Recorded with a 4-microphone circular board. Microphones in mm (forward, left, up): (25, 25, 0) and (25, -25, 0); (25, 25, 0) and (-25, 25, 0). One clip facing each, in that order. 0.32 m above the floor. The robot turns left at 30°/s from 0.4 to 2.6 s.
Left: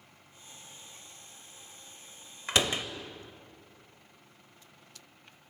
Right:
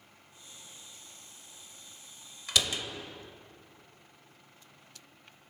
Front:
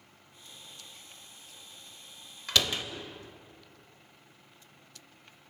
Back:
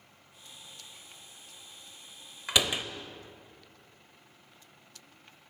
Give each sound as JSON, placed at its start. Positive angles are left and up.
{"t": 2.5, "sound": "a door slam", "azimuth_deg": 120, "distance_m": 0.6}